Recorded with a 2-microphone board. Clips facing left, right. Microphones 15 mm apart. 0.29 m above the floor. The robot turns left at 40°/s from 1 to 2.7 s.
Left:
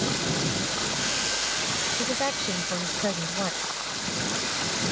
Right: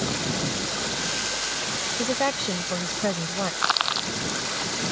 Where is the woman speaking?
20° right (ahead or behind); by 3.5 s 10° right (ahead or behind).